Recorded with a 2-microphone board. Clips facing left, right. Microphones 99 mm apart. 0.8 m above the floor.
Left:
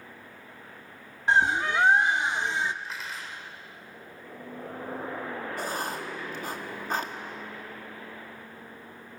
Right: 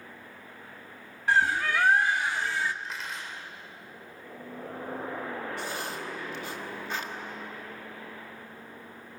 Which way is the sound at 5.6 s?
45° left (ahead or behind).